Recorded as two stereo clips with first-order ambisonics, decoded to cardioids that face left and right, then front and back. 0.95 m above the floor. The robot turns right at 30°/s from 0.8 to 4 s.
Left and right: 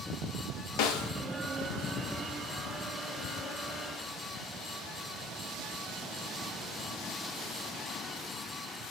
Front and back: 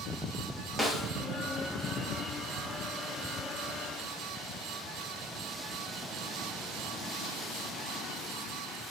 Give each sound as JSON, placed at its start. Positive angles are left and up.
{"t": 0.8, "sound": "a snare drum", "azimuth_deg": 95, "distance_m": 0.5}